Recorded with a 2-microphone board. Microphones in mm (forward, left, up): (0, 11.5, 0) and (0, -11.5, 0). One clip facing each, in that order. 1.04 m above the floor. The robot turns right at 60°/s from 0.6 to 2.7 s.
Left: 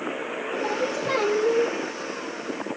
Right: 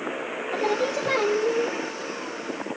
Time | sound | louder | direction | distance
0.5 | singing | right 3 dB | 35° right | 0.7 m